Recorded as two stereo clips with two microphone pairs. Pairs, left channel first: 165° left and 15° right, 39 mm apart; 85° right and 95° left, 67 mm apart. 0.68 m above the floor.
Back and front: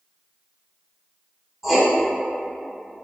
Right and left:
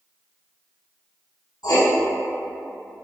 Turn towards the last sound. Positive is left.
turn(degrees=-95)